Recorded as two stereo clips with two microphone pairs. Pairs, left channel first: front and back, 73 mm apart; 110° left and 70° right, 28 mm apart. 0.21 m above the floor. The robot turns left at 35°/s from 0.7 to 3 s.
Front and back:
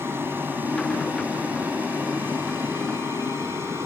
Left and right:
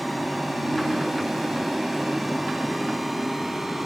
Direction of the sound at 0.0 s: 170° right.